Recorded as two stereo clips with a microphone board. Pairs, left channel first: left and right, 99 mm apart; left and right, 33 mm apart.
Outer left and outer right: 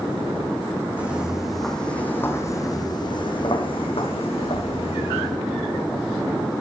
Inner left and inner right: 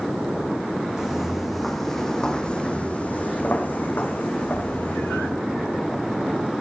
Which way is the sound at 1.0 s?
15° right (ahead or behind).